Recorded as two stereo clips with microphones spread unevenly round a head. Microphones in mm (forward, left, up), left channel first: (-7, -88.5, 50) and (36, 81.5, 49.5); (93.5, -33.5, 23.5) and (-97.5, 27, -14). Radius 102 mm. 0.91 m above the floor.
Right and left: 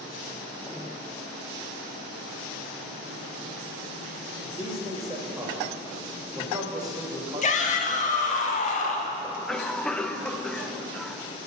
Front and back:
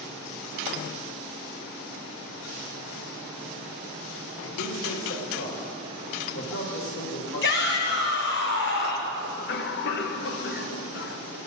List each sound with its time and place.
4.4 s a man speaking: 5° left, 1.6 m
7.4 s a shout: 55° right, 1.6 m
9.2 s a cough: 20° right, 0.7 m